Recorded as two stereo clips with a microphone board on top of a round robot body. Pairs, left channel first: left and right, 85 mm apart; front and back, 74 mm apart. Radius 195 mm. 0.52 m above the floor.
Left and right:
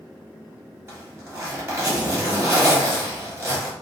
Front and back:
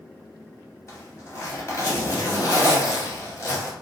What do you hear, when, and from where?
0.9 s a zipper: 35° right, 1.5 m